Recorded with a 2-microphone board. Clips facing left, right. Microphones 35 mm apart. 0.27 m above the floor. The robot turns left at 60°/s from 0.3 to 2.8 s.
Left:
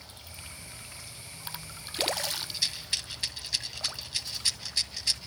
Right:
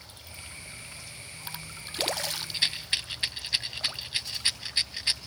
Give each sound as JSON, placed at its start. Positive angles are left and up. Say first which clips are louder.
{"t": 2.5, "sound": "a rattle", "louder": "right 4 dB", "side_deg": -40, "distance_m": 2.0}